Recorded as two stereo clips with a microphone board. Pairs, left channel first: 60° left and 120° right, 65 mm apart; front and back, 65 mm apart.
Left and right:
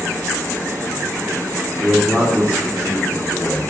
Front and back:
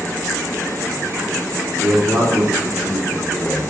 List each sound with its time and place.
1.8 s a man speaking: straight behind, 2.0 m